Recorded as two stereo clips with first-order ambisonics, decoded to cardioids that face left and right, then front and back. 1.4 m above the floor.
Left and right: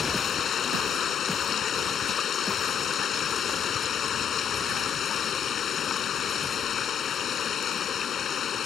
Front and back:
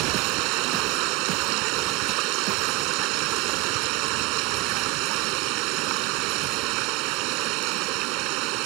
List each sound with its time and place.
0.0 s running water: 155° left